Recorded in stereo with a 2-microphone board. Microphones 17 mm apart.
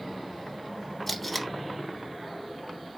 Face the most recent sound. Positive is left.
turn(degrees=20)  # may be behind; listen again after turning